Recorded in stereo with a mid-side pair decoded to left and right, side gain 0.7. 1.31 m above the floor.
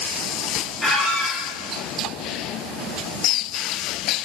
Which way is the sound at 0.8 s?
15° left.